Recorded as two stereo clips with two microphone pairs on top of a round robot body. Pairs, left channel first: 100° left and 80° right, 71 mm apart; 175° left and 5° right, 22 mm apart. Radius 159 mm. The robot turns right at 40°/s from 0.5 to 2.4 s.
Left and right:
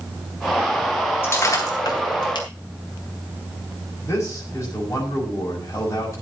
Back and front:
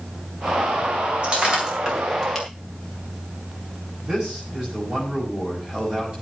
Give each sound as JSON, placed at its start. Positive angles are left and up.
{"t": 1.2, "sound": "breaking glass", "azimuth_deg": 40, "distance_m": 4.0}
{"t": 4.0, "sound": "a man speaking", "azimuth_deg": 50, "distance_m": 6.0}